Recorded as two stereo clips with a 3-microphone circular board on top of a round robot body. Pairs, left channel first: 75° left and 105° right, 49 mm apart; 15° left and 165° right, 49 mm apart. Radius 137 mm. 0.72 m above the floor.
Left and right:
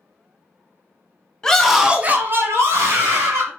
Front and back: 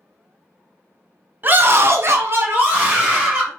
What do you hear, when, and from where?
1.4 s a scream: 150° left, 1.2 m; by 3.5 s 105° right, 2.5 m